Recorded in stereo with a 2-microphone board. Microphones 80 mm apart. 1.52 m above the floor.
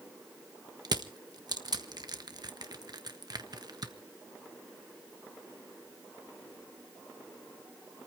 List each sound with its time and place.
0.8 s crushing: 55° right (ahead or behind), 1.3 m